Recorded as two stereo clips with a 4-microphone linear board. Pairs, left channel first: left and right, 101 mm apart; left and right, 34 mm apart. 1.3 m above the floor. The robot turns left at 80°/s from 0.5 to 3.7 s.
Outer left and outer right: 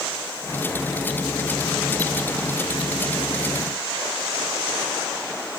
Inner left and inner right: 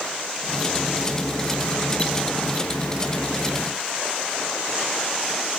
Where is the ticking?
No ticking in this recording.